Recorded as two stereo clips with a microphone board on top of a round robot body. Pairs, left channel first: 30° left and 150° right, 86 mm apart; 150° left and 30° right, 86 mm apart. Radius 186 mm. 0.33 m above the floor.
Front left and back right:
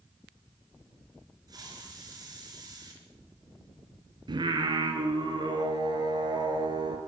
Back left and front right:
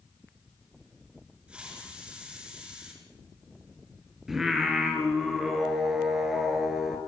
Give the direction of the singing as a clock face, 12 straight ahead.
4 o'clock.